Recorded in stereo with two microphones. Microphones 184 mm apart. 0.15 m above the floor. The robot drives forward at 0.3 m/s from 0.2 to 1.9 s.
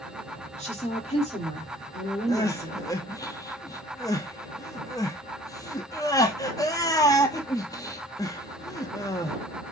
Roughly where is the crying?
Left.